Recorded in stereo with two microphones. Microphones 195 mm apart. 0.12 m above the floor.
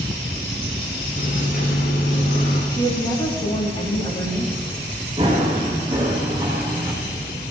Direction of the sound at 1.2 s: 65° left (ahead or behind).